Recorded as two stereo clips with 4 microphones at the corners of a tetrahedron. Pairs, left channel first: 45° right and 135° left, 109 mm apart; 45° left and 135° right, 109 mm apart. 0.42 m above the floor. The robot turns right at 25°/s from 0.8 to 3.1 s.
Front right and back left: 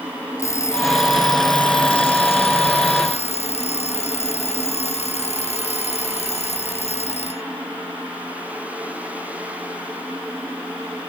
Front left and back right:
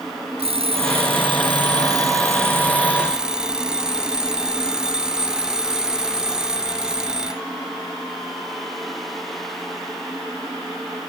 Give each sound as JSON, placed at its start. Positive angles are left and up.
{"t": 0.4, "sound": "an alarm clock", "azimuth_deg": -110}